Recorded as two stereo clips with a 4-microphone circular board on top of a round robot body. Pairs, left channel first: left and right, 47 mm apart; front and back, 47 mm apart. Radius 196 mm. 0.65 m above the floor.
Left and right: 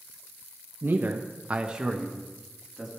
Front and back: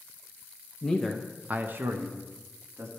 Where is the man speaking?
70° right, 1.0 m; by 2.9 s 175° left, 2 m.